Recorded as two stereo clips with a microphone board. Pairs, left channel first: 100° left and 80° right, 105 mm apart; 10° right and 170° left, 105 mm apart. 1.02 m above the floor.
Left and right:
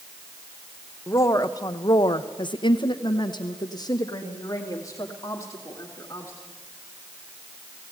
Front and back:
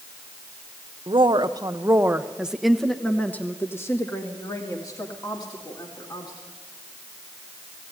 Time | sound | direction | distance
1.1 | a woman speaking | 155° left | 0.9 m